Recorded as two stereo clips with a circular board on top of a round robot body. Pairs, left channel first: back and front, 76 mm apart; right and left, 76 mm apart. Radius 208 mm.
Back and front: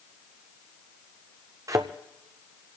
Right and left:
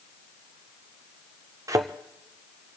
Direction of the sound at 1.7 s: 45° left.